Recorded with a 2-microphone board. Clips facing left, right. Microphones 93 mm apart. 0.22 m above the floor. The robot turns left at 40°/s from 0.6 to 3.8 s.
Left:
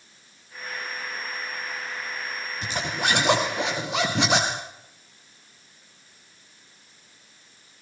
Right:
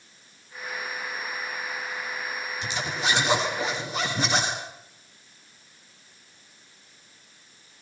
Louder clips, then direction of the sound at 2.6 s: Left 2 dB; 140° left.